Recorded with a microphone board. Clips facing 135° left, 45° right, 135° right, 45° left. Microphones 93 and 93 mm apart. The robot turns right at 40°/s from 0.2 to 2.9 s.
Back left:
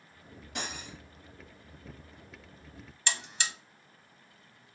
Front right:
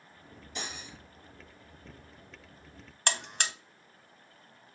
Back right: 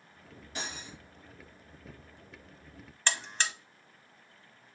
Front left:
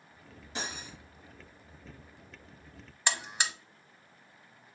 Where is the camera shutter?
No camera shutter in this recording.